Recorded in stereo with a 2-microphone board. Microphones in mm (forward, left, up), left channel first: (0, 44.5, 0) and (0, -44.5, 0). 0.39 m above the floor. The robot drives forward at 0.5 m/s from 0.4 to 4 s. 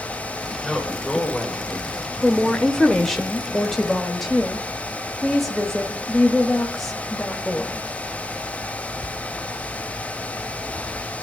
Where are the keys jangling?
No keys jangling in this recording.